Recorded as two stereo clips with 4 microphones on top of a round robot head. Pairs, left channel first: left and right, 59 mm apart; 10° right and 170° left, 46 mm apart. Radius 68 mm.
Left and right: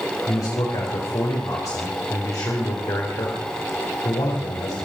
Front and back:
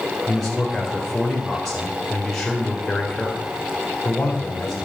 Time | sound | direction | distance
0.3 | a man speaking | 70° left | 4 m